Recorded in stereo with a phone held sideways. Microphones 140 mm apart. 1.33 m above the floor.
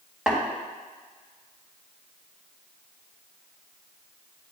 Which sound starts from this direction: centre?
Tapping, at 0.3 s.